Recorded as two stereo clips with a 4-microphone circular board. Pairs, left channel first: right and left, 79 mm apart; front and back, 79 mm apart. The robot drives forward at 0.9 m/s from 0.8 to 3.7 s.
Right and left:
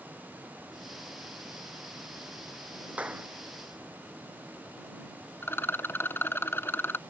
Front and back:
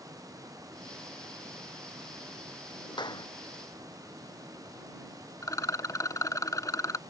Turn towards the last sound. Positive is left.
turn(degrees=-35)